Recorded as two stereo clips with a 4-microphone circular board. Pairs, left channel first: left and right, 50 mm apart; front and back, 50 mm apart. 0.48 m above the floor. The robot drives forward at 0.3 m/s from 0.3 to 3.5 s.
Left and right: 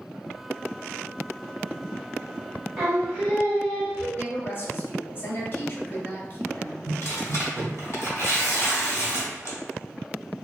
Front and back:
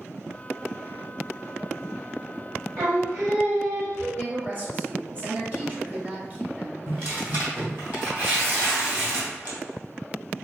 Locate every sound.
2.8 s singing: 170° right, 1.6 m
4.2 s a woman speaking: 135° left, 1.1 m
6.9 s tearing paper: 130° left, 1.5 m